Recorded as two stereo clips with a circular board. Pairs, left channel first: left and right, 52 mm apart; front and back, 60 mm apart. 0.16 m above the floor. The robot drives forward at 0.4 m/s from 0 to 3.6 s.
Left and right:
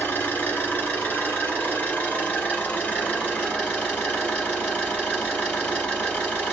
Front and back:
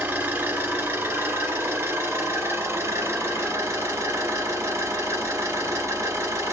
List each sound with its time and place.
0.0 s an engine running: 130° left, 1.9 m; by 6.5 s 155° left, 3 m